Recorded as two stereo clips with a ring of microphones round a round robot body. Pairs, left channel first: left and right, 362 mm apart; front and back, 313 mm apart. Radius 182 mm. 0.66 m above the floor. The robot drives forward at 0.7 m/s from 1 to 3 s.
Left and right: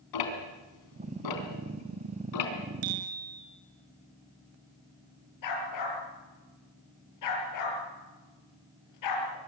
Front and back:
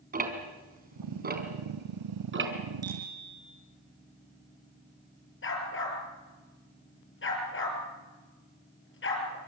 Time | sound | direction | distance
0.1 | ticking | 115° left | 3.5 m
2.8 | a bicycle bell | 100° right | 7.5 m
5.4 | a dog barking | 50° left | 5.5 m